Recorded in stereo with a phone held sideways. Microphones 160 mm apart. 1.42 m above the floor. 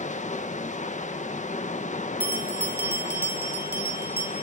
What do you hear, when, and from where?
0.0 s running water: 45° left (ahead or behind), 1.2 m
2.2 s a bell: 75° right (ahead or behind), 3 m